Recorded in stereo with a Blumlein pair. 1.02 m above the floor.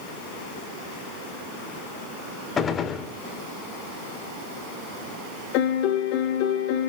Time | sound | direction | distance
2.6 | a gunshot | 20° left | 1.7 m
5.5 | a piano | 45° left | 2.5 m